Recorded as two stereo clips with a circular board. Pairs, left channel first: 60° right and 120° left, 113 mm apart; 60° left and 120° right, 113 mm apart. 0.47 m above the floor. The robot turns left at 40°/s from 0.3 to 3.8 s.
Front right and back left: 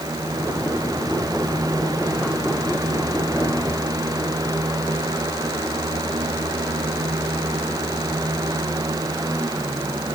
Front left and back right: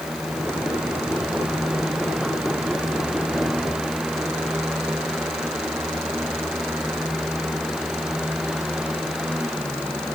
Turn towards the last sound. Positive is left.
No sound to turn to.